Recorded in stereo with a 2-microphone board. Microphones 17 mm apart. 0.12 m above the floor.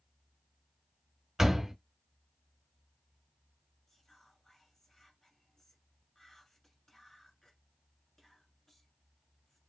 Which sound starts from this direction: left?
Whispering, at 3.9 s.